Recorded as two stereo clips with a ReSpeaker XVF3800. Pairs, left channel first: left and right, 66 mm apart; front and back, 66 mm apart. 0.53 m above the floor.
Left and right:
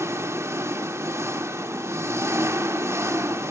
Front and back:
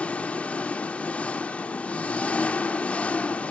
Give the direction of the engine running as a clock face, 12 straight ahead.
2 o'clock.